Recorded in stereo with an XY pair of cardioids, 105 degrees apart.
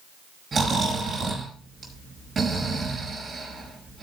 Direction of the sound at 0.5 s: 35° right.